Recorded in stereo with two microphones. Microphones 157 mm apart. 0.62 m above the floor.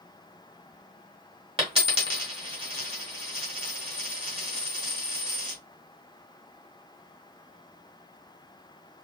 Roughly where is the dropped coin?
Right.